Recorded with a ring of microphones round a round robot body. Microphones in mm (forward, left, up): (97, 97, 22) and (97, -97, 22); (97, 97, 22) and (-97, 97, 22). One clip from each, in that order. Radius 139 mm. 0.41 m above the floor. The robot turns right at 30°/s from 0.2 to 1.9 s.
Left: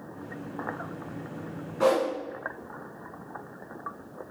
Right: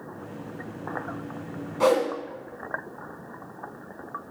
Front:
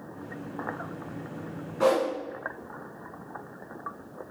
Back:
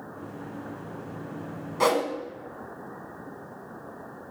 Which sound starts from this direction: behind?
A whoosh, at 1.8 s.